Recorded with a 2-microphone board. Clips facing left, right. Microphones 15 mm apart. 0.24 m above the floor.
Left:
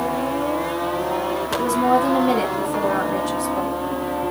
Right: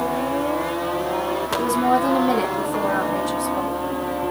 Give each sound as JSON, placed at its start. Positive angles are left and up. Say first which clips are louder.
{"t": 1.5, "sound": "a woman speaking", "louder": "left 1 dB", "side_deg": 15, "distance_m": 1.6}